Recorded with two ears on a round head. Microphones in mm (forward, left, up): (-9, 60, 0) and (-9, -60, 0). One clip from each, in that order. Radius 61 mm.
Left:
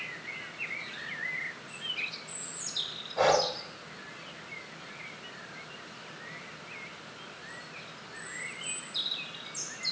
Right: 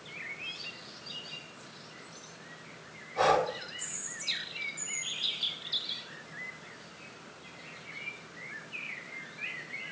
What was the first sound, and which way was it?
Breathing, 5° right (ahead or behind).